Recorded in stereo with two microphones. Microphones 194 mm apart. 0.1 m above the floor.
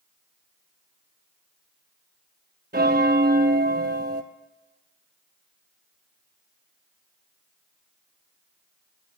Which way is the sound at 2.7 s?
55° right (ahead or behind).